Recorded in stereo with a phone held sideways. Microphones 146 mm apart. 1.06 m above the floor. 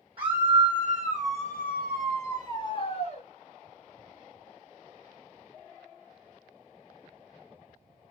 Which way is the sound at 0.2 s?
35° right (ahead or behind).